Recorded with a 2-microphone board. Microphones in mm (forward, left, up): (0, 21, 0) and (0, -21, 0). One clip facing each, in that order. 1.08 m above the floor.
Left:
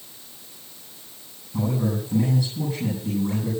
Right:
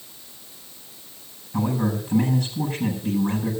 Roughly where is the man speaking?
Right.